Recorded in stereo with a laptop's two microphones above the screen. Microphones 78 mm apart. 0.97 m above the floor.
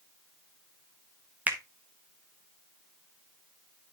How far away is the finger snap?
About 0.8 m.